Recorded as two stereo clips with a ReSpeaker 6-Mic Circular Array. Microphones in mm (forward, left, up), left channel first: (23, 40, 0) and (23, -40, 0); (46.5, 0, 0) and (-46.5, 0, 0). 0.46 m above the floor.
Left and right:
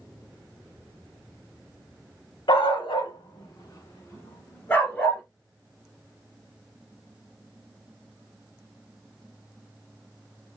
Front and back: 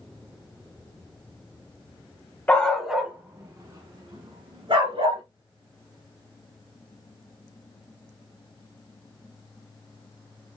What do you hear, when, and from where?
2.5 s a dog barking: 75° left, 1.0 m; by 5.2 s 165° left, 1.9 m